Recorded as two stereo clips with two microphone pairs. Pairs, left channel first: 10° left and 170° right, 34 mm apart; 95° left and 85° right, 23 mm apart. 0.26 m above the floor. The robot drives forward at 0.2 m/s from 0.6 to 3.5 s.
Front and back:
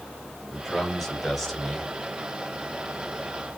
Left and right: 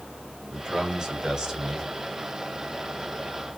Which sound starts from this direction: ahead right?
A man speaking, at 0.5 s.